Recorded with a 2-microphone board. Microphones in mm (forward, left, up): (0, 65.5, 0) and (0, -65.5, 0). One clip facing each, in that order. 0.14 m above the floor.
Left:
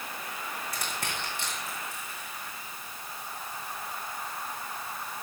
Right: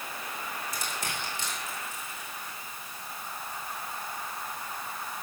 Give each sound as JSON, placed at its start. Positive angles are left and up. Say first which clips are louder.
{"t": 0.7, "sound": "crushing", "louder": "even", "side_deg": 60, "distance_m": 5.0}